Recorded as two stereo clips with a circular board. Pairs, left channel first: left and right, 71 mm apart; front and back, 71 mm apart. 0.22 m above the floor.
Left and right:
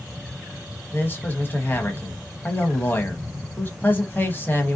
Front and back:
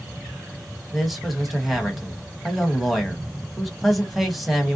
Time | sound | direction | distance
0.9 | a man speaking | 95° left | 1.0 m